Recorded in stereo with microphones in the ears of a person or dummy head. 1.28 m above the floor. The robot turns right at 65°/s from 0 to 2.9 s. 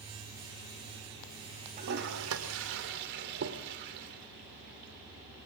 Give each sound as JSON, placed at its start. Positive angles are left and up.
{"t": 1.8, "sound": "a toilet flushing", "side_deg": -45, "distance_m": 2.5}